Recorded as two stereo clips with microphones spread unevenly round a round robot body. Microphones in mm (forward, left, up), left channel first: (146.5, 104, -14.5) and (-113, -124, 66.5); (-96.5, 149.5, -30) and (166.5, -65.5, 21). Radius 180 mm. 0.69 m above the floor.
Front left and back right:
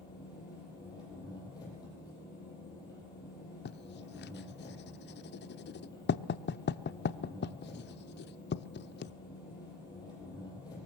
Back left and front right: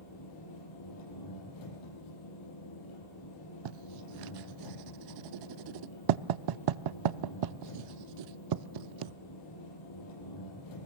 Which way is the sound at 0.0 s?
120° left.